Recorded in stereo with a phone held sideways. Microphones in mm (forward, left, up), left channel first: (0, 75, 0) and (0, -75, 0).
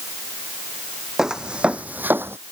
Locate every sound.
1.2 s footsteps: 5° right (ahead or behind); by 2.4 s 15° right (ahead or behind)